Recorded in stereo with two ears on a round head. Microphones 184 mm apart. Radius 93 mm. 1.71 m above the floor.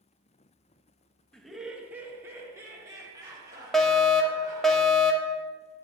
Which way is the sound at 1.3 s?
5° left (ahead or behind).